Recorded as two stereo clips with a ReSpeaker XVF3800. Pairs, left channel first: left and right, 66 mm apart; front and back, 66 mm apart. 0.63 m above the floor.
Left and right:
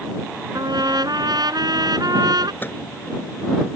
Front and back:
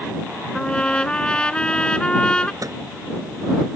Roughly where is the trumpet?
Right.